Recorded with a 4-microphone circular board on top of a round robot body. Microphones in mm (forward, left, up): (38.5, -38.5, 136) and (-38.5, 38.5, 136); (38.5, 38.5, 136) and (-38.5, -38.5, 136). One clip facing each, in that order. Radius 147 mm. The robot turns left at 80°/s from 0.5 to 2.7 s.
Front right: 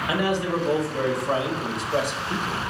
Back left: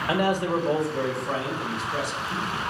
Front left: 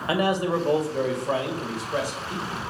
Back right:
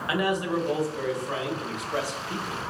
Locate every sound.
0.1 s a man speaking: 100° left, 1.9 m; by 2.6 s 70° right, 1.9 m